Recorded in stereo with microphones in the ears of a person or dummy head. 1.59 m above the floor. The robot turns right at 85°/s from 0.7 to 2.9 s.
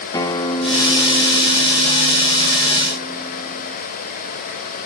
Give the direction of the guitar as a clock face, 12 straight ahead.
7 o'clock.